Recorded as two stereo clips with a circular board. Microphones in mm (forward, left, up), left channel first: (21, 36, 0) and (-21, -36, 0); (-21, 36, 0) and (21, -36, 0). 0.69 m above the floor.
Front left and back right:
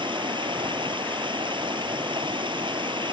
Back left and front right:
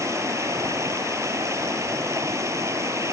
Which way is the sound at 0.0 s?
115° right.